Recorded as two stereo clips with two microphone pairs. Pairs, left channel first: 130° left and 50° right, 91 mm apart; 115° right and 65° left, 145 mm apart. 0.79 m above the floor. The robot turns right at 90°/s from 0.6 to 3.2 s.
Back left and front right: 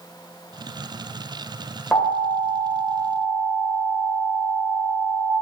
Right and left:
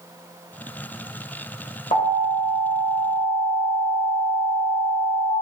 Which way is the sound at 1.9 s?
150° right.